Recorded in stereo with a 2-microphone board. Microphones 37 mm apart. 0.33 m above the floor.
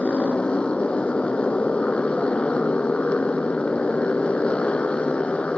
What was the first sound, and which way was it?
A motorcycle, 30° left (ahead or behind).